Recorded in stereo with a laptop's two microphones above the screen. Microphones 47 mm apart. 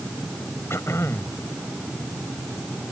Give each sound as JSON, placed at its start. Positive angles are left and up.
{"t": 0.7, "sound": "throat clearing", "side_deg": 70}